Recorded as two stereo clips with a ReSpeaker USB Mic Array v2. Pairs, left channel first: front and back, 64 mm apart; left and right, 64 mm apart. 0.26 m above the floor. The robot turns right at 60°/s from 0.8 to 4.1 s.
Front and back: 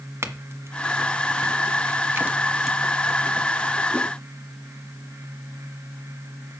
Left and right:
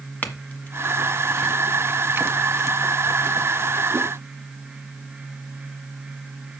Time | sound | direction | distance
0.2 | a clink | 145° left | 1.5 m